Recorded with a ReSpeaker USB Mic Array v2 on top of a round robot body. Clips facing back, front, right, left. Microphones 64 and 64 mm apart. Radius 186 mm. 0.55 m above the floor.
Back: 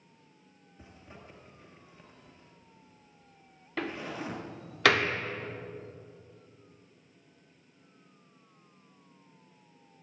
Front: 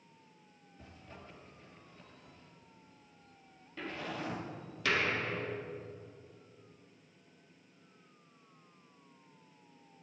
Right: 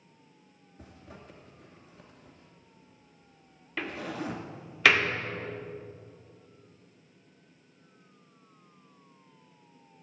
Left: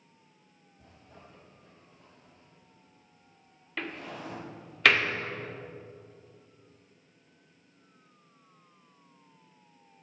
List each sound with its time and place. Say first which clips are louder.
0.8 s a zipper: back 1 dB, right 5 dB; 110° right, 2.5 m
3.8 s a door slam: back 4 dB, right 3 dB; 175° right, 1.3 m